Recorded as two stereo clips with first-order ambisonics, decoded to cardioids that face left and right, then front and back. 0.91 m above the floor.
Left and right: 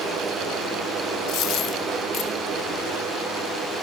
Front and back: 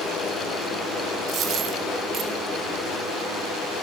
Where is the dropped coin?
130° left, 0.8 m.